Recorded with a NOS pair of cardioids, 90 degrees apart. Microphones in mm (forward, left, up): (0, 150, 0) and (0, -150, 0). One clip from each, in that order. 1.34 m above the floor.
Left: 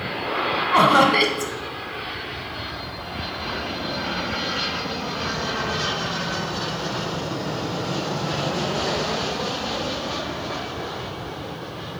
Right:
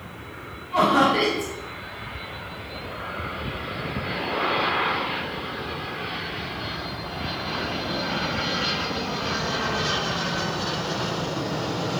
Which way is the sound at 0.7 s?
60° left.